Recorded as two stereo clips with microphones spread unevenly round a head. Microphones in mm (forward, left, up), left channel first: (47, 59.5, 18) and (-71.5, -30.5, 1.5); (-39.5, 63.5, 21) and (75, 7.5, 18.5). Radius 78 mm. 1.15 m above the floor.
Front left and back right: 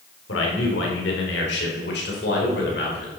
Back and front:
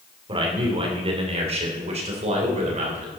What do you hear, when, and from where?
0.3 s a man speaking: 25° left, 3 m; by 3.1 s 5° left, 4 m